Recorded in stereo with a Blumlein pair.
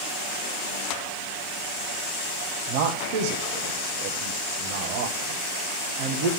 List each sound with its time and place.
2.7 s a man speaking: 50° right, 1.5 m